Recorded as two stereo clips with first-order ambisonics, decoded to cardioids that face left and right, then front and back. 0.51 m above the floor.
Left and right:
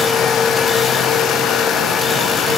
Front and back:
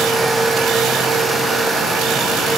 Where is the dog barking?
I don't hear a dog barking.